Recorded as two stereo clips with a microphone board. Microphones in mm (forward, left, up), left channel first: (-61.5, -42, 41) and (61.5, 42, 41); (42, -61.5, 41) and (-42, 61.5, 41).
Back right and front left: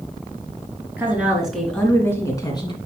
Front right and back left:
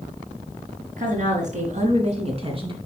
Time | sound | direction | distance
1.0 | a woman speaking | 110° left | 3 m